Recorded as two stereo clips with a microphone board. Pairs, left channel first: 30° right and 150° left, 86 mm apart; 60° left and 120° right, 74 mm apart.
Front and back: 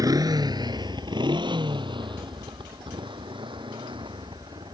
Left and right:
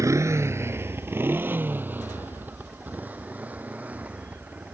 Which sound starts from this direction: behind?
A motorcycle, at 0.0 s.